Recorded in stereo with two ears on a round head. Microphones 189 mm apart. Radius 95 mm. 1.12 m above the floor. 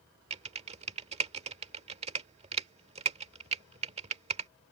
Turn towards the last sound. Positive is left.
turn(degrees=-30)  # may be behind; listen again after turning